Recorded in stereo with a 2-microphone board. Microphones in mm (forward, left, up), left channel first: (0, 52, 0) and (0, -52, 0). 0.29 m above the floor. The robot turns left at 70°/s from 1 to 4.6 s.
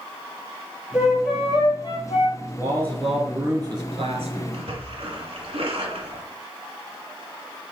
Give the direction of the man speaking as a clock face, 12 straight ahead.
11 o'clock.